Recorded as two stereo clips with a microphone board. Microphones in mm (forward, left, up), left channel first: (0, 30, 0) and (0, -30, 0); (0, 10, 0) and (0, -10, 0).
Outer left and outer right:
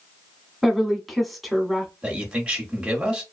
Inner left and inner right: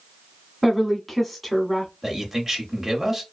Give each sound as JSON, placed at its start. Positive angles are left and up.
{"t": 0.6, "sound": "a woman speaking", "side_deg": 0, "distance_m": 0.9}
{"t": 2.0, "sound": "a man speaking", "side_deg": -15, "distance_m": 1.4}